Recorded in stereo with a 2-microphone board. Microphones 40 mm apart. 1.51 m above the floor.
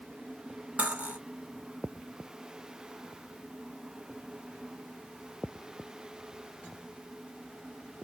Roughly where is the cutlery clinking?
Right.